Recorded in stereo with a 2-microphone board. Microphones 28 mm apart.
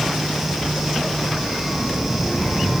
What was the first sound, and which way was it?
A child speaking, 15° right (ahead or behind).